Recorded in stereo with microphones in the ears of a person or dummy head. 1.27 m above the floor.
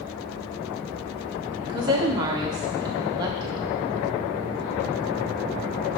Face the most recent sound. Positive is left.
turn(degrees=-20)  # may be behind; listen again after turning